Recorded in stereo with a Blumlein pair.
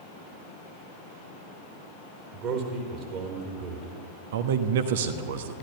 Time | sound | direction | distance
2.3 | a man speaking | 40° right | 4 m
4.3 | a man speaking | 55° right | 1.2 m